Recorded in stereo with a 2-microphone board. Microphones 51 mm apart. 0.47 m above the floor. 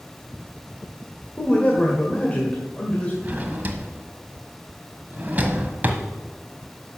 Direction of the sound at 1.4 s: 30° left (ahead or behind).